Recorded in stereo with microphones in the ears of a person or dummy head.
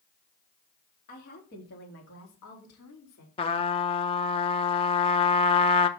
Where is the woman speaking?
45° left (ahead or behind), 2 m; by 3.3 s 80° left, 2.5 m.